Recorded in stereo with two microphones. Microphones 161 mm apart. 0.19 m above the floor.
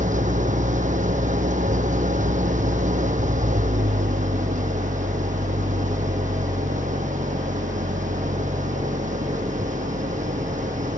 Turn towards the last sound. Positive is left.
turn(degrees=-55)  # may be behind; listen again after turning